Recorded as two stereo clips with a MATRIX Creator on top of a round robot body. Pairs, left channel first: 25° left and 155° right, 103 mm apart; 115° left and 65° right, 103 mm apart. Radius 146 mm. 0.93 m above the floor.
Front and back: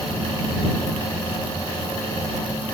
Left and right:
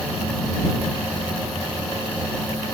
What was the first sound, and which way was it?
Only background noise.